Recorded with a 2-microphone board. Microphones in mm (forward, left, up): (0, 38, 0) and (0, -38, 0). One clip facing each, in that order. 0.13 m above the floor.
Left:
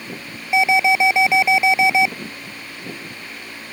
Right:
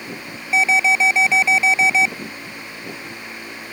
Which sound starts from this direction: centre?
An alarm, at 0.5 s.